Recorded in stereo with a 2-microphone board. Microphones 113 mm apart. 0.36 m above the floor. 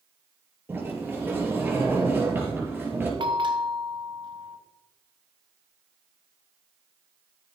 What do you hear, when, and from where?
0.7 s a sliding door: 20° right (ahead or behind), 5 m
3.2 s a bell: 45° right (ahead or behind), 1.8 m